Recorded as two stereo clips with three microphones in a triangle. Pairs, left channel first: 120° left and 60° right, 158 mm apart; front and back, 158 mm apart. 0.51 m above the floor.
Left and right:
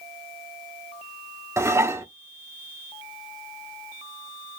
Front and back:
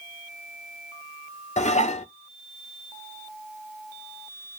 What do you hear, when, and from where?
1.6 s dishes clattering: 5° left, 0.6 m